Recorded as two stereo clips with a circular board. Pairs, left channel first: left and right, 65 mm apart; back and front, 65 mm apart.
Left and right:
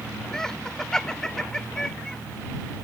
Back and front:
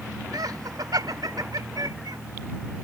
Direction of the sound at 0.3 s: 10° left.